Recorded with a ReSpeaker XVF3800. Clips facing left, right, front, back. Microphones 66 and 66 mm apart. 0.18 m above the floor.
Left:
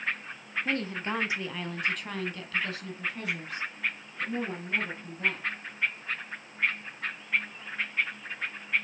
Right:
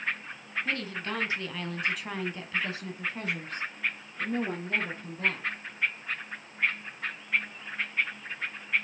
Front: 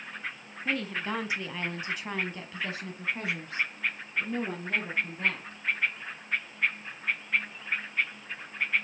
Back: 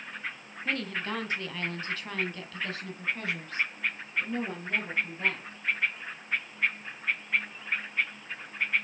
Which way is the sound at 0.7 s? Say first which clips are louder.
Left 3 dB, front 1 dB; 80° left.